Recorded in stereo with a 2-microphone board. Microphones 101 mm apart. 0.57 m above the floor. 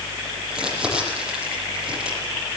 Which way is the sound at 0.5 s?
10° right (ahead or behind).